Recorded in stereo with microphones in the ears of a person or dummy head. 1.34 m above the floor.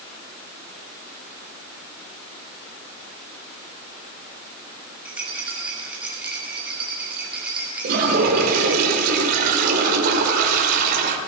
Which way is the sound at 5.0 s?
10° right (ahead or behind).